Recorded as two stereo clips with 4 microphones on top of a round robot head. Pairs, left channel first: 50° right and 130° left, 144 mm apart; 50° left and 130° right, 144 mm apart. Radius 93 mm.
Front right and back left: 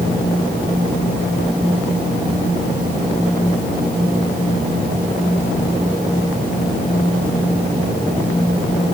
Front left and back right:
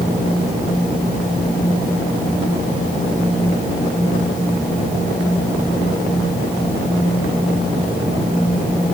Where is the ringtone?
I don't hear a ringtone.